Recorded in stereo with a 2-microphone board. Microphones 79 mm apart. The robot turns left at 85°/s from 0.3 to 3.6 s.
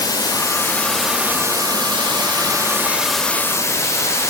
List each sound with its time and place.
0.0 s running water: 60° left, 0.8 m; by 4.3 s 140° left, 0.8 m